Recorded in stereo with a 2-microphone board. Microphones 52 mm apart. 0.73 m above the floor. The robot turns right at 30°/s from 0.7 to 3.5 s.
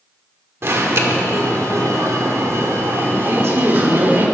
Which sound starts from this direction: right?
A woman speaking, at 3.3 s.